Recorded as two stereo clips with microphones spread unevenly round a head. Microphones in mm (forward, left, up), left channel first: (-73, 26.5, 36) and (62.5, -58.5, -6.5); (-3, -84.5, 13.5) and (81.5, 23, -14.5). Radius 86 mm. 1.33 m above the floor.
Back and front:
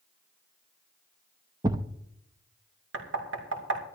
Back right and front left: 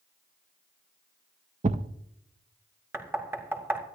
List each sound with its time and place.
1.6 s a thud: 45° left, 0.6 m
2.9 s knocking: 25° right, 3 m